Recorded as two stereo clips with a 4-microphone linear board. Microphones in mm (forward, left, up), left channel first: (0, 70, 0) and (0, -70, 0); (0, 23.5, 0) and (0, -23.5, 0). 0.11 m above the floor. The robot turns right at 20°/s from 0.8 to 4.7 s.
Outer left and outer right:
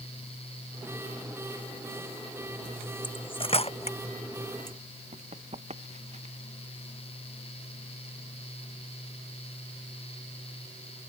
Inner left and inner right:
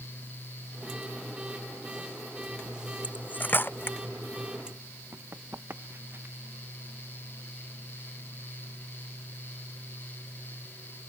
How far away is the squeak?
I don't hear a squeak.